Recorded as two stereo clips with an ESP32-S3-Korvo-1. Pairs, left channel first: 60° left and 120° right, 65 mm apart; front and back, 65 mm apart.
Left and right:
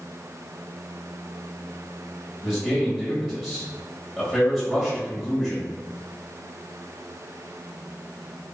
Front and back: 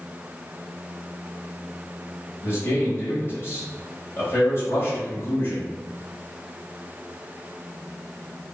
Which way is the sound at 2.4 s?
25° right.